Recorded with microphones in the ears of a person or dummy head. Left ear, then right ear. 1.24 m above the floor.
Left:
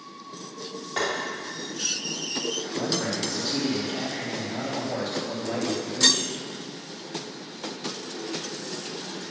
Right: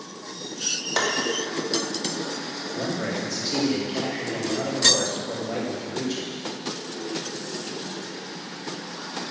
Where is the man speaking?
15° right (ahead or behind), 3 m.